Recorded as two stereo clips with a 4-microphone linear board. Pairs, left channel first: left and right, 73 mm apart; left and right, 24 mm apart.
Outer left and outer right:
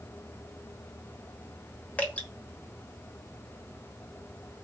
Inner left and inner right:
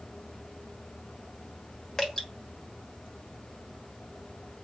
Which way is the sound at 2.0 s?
20° left (ahead or behind).